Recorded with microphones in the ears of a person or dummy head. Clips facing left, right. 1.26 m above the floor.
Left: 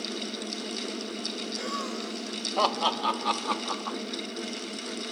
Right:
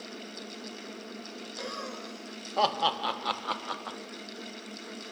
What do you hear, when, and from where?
1.6 s laughter: 5° left (ahead or behind), 2.5 m; by 4.0 s 15° right (ahead or behind), 0.9 m